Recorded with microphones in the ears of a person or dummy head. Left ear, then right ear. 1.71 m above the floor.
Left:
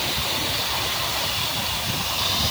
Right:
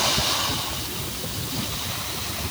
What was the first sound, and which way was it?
Only background noise.